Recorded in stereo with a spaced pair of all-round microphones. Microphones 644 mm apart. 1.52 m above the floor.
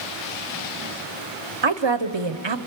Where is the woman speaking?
45° right (ahead or behind), 1.0 m.